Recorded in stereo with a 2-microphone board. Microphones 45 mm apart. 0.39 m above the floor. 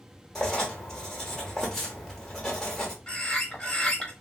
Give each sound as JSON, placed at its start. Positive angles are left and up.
{"t": 0.3, "sound": "writing", "side_deg": 10, "distance_m": 1.0}
{"t": 3.1, "sound": "a bird", "side_deg": 20, "distance_m": 1.1}